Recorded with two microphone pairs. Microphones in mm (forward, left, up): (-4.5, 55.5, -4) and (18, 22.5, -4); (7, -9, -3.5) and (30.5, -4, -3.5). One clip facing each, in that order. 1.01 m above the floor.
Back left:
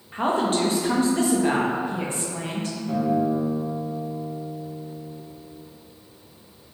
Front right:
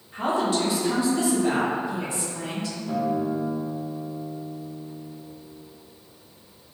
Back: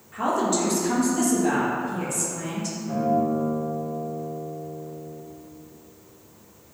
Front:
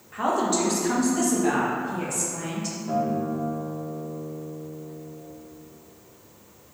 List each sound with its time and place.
0.1 s a woman speaking: 90° left, 0.9 m
2.9 s a guitar: 30° left, 0.9 m